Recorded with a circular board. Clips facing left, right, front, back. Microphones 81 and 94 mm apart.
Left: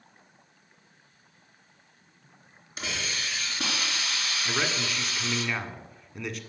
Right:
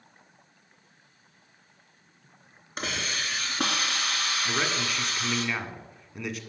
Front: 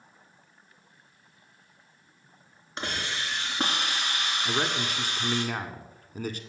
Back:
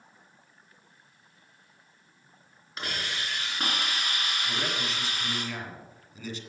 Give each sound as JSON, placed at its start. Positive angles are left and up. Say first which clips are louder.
{"t": 2.8, "sound": "a hiss", "louder": "right 2 dB, front 2 dB", "azimuth_deg": -55, "distance_m": 3.0}
{"t": 4.5, "sound": "a man speaking", "louder": "left 1 dB, front 6 dB", "azimuth_deg": 0, "distance_m": 1.6}